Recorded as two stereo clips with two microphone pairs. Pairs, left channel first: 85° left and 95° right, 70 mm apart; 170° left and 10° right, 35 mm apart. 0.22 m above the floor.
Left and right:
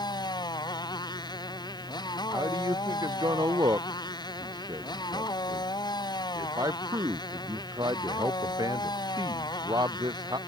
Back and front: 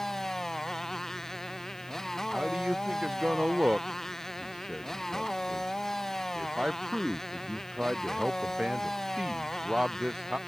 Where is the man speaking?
75° right.